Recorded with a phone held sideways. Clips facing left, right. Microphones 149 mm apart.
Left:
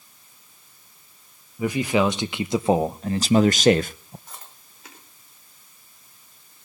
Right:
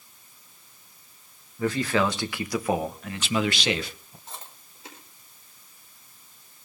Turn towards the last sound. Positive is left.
turn(degrees=-25)  # may be behind; listen again after turning